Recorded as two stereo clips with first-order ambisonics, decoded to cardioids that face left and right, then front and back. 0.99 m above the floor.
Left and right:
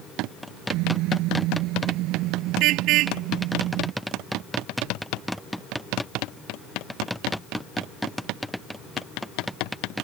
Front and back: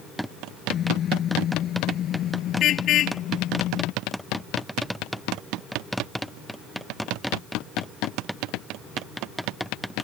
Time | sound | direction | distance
0.7 | a car horn | 60° right | ?